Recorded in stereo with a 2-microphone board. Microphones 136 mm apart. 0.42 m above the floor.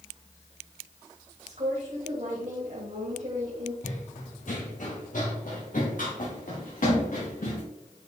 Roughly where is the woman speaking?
Right.